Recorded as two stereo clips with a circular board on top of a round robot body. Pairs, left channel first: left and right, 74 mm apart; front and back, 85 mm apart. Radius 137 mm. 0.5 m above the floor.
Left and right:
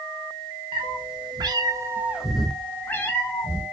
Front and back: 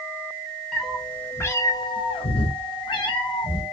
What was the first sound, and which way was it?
A cat meowing, 85° right.